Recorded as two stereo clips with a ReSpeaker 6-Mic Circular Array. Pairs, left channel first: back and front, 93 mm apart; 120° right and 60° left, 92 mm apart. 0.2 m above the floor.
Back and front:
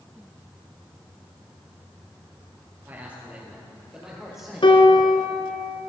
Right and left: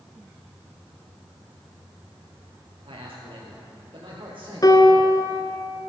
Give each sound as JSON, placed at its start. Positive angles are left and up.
{"t": 2.9, "sound": "a man speaking", "azimuth_deg": 70, "distance_m": 3.5}
{"t": 4.6, "sound": "a piano", "azimuth_deg": -165, "distance_m": 1.0}